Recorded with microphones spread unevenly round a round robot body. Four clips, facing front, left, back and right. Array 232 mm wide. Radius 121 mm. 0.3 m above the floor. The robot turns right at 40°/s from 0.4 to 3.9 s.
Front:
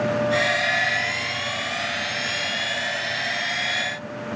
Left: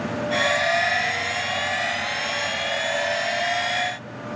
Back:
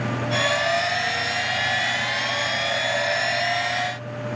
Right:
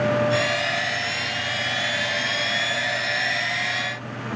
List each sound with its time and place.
Only background noise.